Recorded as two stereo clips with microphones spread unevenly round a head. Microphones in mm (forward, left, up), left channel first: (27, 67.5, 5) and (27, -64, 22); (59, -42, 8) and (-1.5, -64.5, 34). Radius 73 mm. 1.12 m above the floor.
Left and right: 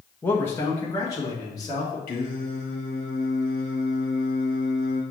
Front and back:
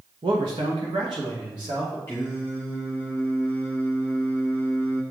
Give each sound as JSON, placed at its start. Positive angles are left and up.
{"t": 0.2, "sound": "a man speaking", "azimuth_deg": 165, "distance_m": 0.9}
{"t": 2.1, "sound": "singing", "azimuth_deg": 100, "distance_m": 1.7}